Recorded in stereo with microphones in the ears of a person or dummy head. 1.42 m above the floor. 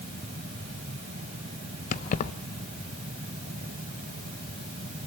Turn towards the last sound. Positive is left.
turn(degrees=45)  # may be behind; listen again after turning